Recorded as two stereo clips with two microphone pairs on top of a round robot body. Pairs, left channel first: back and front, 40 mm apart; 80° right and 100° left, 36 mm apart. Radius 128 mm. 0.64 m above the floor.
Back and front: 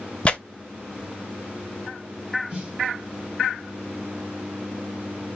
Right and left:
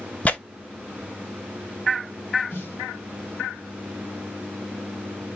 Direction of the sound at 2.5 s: 65° right.